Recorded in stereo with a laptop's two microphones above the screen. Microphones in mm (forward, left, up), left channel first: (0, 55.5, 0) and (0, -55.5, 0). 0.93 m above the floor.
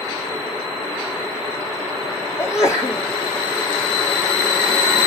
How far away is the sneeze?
About 2.5 m.